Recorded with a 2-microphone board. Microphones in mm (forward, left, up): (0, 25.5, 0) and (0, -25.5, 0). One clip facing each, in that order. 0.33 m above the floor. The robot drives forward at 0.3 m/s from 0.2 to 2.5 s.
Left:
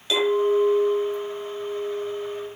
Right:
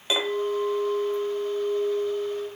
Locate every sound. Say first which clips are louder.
0.1 s a clink: left 6 dB; 25° right (ahead or behind), 1.3 m; by 2.5 s 15° right (ahead or behind), 1.9 m